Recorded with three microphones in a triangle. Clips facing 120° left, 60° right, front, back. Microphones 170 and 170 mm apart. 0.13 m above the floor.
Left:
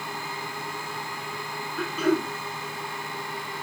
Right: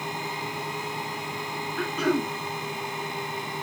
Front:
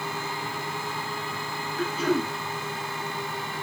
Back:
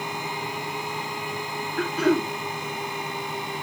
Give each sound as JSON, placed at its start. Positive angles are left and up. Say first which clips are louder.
{"t": 1.8, "sound": "throat clearing", "louder": "left 1 dB, back 4 dB", "azimuth_deg": -155, "distance_m": 5.0}